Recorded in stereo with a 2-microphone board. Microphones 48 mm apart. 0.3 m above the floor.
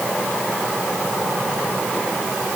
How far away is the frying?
I don't hear frying.